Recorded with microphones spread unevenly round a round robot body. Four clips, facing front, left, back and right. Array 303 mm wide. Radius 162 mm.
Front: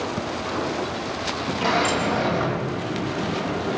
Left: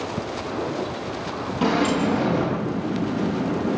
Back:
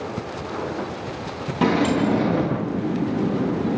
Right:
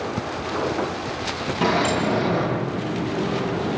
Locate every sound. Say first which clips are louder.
1.6 s a sliding door: even, back 4 dB; straight behind, 5 m